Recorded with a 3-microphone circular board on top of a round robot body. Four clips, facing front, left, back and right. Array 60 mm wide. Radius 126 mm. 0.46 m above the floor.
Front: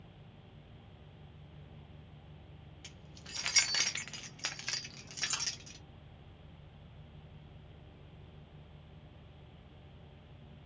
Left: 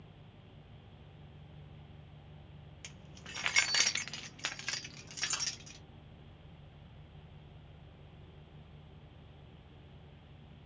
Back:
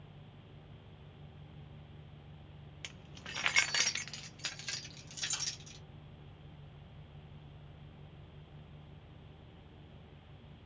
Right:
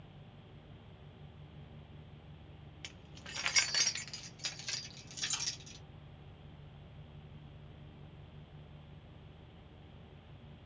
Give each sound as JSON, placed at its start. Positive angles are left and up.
{"t": 2.8, "sound": "keys jangling", "azimuth_deg": -165, "distance_m": 0.8}